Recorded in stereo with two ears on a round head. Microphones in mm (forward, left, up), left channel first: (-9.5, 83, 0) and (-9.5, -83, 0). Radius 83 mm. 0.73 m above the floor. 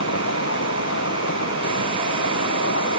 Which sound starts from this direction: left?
An insect, at 0.0 s.